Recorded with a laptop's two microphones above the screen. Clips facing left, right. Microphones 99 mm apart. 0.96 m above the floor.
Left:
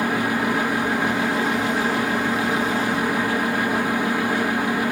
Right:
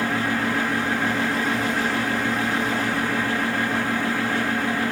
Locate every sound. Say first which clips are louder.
0.0 s a fan: left 2 dB; 15° left (ahead or behind), 0.9 m